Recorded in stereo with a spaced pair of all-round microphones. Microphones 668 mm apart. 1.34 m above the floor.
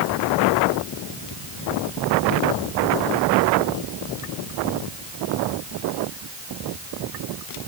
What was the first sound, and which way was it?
Only background noise.